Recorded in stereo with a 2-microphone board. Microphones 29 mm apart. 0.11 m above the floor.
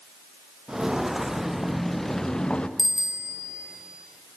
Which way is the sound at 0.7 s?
20° right (ahead or behind).